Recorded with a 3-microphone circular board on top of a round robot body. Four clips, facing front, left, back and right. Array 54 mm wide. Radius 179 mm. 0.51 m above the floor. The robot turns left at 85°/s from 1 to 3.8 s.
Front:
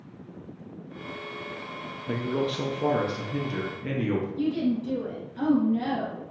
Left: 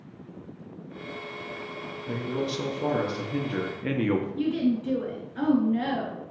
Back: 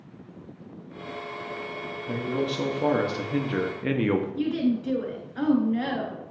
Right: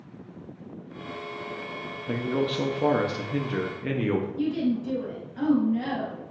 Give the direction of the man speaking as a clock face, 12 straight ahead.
2 o'clock.